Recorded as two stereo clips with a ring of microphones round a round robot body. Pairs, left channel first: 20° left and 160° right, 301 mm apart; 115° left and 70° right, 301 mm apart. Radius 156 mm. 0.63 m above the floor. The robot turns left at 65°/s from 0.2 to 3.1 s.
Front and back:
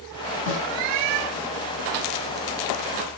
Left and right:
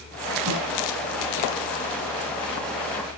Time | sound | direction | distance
0.5 | a snare drum | 25° right | 4.5 m